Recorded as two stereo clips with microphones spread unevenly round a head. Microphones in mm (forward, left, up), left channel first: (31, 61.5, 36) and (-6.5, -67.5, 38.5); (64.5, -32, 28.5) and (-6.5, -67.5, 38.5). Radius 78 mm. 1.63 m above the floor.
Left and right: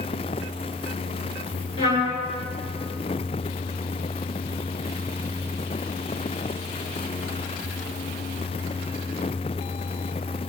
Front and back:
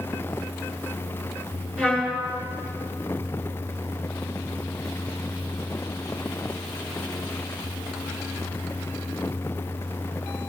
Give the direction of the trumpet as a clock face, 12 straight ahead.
8 o'clock.